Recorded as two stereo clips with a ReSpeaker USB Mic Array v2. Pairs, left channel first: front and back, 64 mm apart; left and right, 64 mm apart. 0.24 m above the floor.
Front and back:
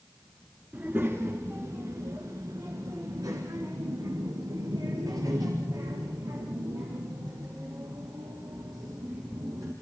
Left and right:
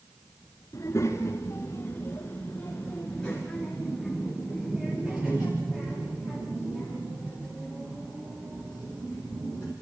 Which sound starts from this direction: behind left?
A child speaking, at 0.7 s.